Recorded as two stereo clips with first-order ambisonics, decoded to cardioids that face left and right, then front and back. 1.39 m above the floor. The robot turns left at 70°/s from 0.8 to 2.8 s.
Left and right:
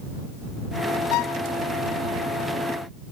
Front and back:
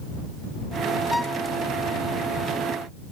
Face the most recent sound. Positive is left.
turn(degrees=-30)